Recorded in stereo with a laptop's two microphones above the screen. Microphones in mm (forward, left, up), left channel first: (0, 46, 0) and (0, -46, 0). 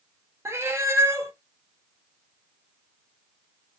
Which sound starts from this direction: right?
A cat meowing, at 0.5 s.